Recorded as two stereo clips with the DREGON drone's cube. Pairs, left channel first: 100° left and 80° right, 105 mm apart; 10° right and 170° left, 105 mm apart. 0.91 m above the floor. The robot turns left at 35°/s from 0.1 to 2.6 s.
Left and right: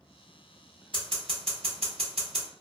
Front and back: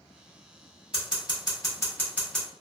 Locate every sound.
0.9 s scissors: 45° right, 1.5 m; by 2.5 s 100° right, 1.5 m